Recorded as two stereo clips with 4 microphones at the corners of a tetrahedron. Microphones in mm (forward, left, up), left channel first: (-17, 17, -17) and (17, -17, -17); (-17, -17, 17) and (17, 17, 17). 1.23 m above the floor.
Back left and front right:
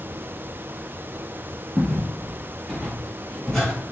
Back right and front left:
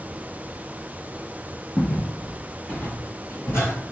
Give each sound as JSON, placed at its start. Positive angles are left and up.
{"t": 1.8, "sound": "footsteps", "azimuth_deg": -140, "distance_m": 1.3}